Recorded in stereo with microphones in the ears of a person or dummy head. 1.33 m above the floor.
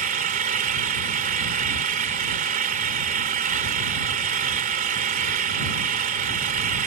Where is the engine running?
45° right (ahead or behind).